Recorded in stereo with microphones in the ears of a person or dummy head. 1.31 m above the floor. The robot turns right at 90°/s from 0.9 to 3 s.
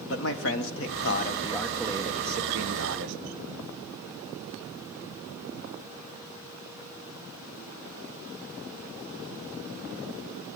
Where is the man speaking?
105° left, 1.0 m; by 3.2 s 65° right, 1.0 m.